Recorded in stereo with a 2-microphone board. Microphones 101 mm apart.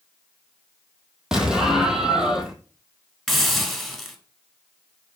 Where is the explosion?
5° right (ahead or behind), 1.4 m.